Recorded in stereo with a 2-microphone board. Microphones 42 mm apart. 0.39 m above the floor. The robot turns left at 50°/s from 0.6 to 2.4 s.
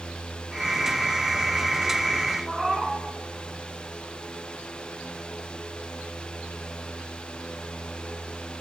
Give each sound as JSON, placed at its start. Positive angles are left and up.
{"t": 2.5, "sound": "a cat meowing", "side_deg": -5, "distance_m": 2.5}